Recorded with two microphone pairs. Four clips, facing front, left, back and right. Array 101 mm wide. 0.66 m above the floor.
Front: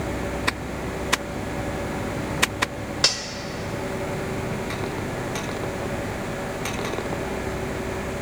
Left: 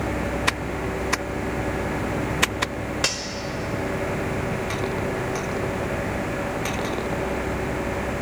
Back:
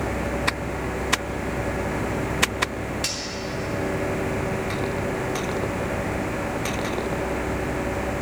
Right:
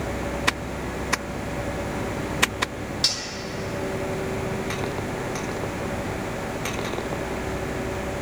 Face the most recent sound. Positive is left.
turn(degrees=40)